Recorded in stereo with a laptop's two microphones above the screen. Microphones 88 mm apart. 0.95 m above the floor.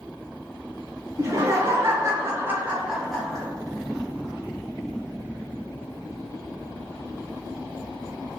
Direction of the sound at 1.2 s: 35° right (ahead or behind).